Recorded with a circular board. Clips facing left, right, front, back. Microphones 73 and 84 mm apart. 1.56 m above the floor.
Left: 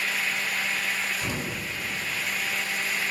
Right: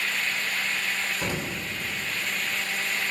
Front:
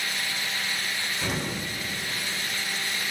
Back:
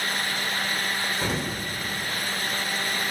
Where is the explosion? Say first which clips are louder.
Right 1 dB, back 2 dB; 130° right, 2.5 m.